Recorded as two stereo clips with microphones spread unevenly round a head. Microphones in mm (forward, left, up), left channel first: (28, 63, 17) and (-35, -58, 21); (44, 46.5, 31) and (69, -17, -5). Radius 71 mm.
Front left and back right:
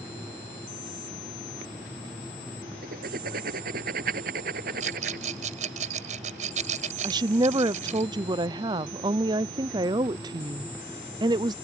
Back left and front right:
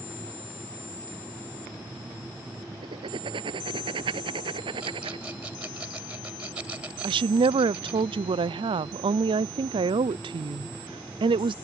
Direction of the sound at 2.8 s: 85° right.